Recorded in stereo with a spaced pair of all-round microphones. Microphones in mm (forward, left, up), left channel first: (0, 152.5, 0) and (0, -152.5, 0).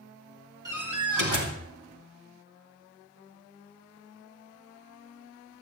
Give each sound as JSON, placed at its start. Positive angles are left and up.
{"t": 0.7, "sound": "a door slam", "side_deg": -75, "distance_m": 2.5}